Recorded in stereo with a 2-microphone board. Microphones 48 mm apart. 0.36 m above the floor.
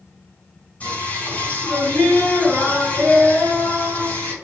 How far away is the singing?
About 4 m.